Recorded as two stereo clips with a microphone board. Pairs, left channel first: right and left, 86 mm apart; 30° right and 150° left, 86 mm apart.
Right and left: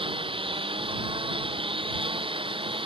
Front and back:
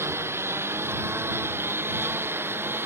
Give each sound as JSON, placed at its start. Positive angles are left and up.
{"t": 0.0, "sound": "a lawn mower", "azimuth_deg": 90}